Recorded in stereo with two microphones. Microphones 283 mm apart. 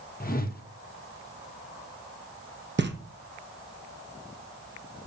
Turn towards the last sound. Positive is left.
turn(degrees=-40)  # may be behind; listen again after turning